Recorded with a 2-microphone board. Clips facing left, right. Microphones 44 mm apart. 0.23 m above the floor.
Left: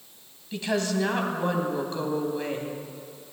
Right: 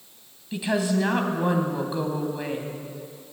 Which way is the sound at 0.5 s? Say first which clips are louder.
Right 2 dB; 10° right (ahead or behind).